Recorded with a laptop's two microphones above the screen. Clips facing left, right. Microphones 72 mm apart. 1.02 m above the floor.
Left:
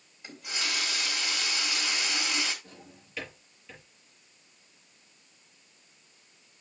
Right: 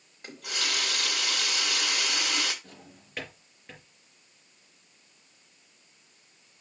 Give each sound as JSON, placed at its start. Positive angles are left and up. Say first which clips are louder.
{"t": 0.2, "sound": "a running tap", "louder": "right 1 dB", "side_deg": -65, "distance_m": 2.5}
{"t": 2.6, "sound": "a drawer", "louder": "even", "side_deg": -50, "distance_m": 5.0}